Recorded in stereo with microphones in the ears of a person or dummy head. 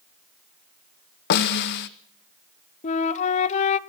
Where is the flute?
40° left (ahead or behind), 0.9 m.